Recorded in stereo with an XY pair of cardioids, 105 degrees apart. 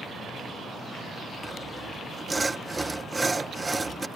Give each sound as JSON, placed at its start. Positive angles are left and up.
{"t": 1.4, "sound": "sawing", "azimuth_deg": -15}